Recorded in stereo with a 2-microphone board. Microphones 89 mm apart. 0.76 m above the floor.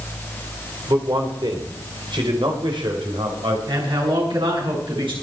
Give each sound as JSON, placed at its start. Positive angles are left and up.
{"t": 0.9, "sound": "a man speaking", "side_deg": -55, "distance_m": 3.0}
{"t": 3.7, "sound": "a man speaking", "side_deg": -85, "distance_m": 7.0}